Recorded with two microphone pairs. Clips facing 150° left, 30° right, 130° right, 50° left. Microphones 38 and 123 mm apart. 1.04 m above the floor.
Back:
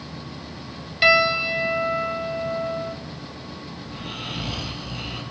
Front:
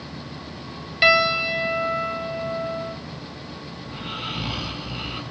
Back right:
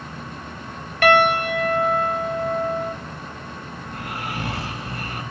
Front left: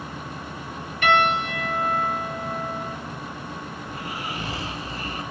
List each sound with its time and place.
1.0 s a piano: 115° right, 3 m
3.9 s snoring: 105° right, 9.5 m